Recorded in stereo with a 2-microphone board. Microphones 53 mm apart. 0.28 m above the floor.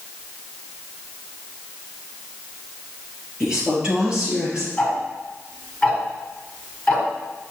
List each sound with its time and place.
3.4 s a woman speaking: 15° right (ahead or behind), 4.5 m; by 4.7 s 25° right (ahead or behind), 5 m
4.8 s ticking: 15° left (ahead or behind), 2.5 m